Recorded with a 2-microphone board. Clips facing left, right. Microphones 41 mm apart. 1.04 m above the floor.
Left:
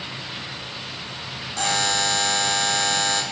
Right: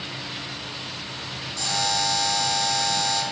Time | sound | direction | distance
1.6 | a buzzer | 55° left (ahead or behind) | 1.7 m